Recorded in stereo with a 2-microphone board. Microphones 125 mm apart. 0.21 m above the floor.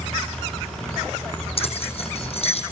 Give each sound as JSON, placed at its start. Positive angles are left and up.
{"t": 1.6, "sound": "keys jangling", "side_deg": 50, "distance_m": 6.5}